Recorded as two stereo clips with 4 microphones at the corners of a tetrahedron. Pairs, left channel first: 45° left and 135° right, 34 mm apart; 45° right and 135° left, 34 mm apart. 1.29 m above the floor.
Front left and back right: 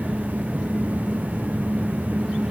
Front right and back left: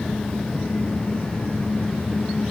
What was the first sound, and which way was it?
Only background noise.